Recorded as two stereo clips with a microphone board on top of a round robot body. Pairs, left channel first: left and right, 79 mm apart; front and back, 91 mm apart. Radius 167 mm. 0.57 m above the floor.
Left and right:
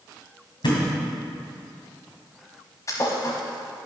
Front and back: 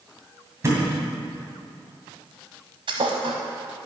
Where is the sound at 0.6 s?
120° left, 2.5 m.